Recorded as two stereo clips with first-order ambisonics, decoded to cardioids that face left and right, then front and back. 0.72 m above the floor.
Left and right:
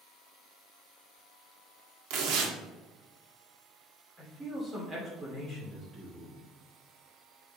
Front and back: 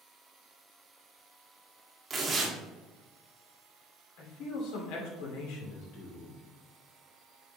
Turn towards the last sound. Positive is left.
turn(degrees=-15)